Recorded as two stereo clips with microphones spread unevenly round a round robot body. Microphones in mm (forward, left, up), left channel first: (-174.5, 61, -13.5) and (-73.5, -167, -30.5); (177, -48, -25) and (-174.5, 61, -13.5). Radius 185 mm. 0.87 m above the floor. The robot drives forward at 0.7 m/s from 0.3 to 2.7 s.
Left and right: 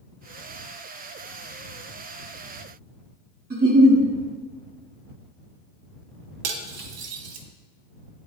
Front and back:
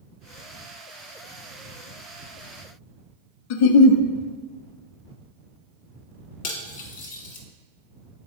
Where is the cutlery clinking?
85° right, 1.0 m.